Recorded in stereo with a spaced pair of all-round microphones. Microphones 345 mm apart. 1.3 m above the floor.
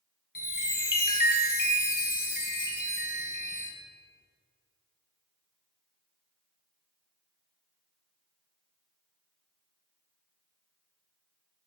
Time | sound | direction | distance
0.3 | a chime | 65° left (ahead or behind) | 0.9 m